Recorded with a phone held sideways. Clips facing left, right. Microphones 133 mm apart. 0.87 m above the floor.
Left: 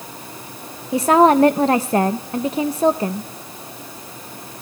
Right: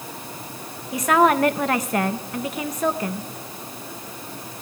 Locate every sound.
0.9 s a woman speaking: 30° left (ahead or behind), 0.6 m